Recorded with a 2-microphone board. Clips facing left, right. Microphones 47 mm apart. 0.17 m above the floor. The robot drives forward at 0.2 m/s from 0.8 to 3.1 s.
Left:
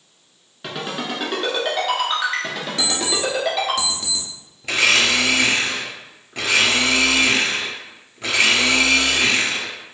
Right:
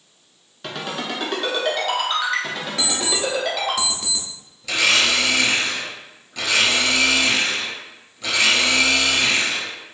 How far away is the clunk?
No clunk in this recording.